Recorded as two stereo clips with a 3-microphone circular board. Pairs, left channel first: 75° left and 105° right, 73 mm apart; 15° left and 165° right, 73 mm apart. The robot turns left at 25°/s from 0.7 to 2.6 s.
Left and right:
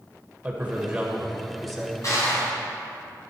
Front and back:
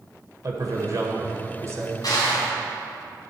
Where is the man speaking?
170° right, 1.8 m; by 2.0 s 155° left, 1.8 m.